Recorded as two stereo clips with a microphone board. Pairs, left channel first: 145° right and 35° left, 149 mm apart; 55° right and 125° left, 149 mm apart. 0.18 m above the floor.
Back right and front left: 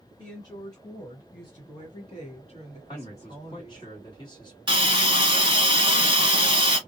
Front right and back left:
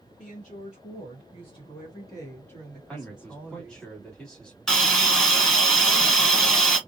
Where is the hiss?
25° left, 1.2 m.